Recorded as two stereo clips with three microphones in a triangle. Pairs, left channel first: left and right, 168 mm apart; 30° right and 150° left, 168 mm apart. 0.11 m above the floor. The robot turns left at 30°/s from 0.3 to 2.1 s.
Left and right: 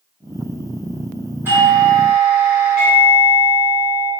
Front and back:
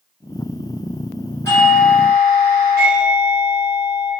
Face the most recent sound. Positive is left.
turn(degrees=-60)